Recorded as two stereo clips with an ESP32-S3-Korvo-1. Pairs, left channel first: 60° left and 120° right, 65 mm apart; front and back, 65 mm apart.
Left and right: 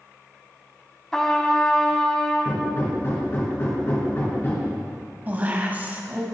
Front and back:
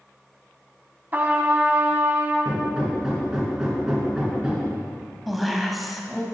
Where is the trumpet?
140° left, 1.1 m.